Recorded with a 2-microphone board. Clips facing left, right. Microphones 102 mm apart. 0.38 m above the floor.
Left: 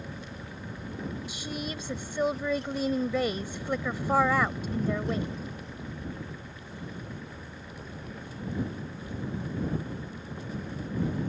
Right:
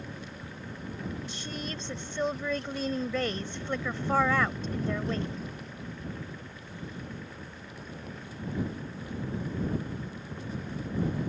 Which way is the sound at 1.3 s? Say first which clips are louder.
Left 2 dB; 10° left (ahead or behind).